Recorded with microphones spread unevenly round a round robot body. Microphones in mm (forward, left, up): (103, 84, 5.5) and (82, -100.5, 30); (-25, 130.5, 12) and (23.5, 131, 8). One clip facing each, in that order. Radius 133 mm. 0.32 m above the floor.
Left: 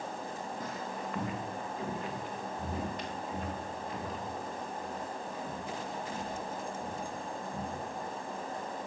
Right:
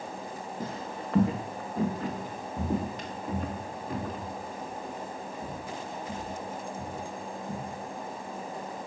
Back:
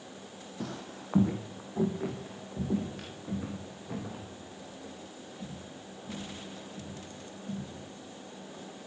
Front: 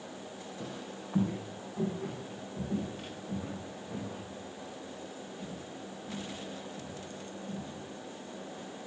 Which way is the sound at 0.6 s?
160° right.